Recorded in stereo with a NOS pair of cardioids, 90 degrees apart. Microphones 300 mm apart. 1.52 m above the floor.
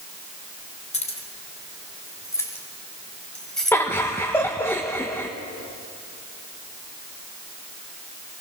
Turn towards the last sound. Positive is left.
turn(degrees=10)